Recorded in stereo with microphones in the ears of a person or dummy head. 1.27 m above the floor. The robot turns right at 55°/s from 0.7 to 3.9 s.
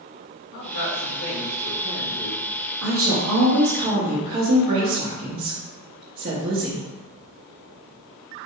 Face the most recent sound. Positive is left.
turn(degrees=-50)